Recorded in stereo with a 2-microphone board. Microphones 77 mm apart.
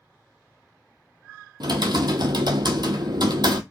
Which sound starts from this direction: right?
Typing on a keyboard, at 1.6 s.